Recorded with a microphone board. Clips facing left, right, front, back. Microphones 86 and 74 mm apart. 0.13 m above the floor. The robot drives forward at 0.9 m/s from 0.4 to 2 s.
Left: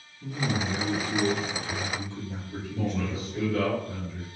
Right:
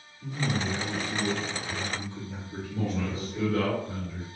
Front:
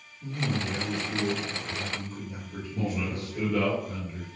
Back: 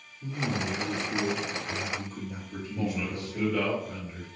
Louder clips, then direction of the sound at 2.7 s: Left 1 dB, front 1 dB; 125° right.